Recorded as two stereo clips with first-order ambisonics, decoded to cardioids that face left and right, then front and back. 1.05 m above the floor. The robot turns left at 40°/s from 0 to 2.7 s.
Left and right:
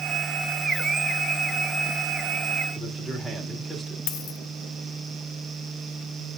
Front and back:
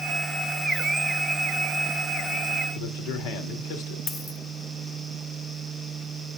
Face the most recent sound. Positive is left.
turn(degrees=70)